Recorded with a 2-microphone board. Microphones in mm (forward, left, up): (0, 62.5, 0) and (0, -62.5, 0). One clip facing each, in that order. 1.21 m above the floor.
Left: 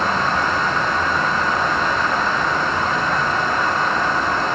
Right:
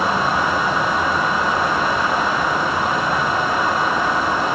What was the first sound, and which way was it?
Only background noise.